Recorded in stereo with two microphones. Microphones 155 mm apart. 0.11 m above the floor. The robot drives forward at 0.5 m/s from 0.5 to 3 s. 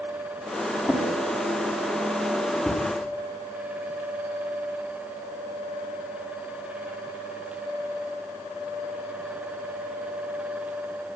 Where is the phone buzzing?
No phone buzzing in this recording.